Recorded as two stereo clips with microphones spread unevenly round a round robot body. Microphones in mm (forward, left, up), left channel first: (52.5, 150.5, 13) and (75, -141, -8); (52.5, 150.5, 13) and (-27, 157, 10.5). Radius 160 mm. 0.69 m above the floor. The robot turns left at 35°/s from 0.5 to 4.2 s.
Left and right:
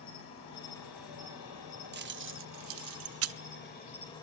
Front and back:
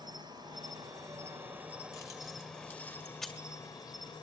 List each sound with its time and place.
0.0 s an insect: 150° left, 3.5 m; by 4.2 s 20° left, 3.5 m
1.9 s keys jangling: 45° right, 0.5 m; by 3.4 s 95° right, 0.5 m